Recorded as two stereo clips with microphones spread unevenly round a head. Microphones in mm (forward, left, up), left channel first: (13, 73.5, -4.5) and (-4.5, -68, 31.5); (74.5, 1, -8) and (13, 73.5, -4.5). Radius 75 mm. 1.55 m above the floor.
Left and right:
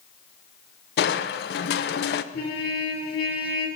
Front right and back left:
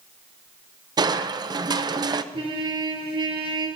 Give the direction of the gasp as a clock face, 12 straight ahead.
No gasp in this recording.